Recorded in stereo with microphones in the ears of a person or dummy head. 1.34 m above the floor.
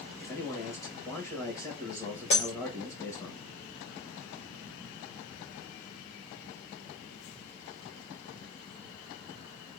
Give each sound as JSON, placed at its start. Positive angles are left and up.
{"t": 0.2, "sound": "a man speaking", "side_deg": 15, "distance_m": 1.8}
{"t": 2.3, "sound": "breaking glass", "side_deg": 30, "distance_m": 1.2}